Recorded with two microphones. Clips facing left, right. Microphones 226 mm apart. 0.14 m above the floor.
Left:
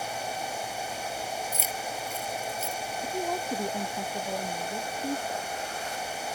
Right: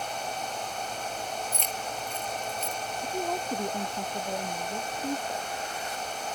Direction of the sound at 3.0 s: Centre (ahead or behind).